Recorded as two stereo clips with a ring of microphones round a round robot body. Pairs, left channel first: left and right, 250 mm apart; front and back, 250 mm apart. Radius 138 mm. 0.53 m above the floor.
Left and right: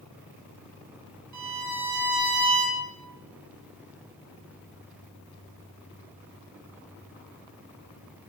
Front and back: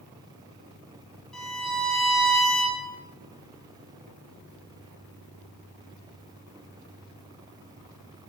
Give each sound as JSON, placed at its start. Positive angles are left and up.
{"t": 1.3, "sound": "a violin", "azimuth_deg": -90, "distance_m": 3.0}